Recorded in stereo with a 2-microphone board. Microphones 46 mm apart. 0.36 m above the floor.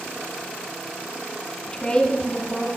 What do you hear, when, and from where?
1.7 s a woman speaking: 15° left (ahead or behind), 2 m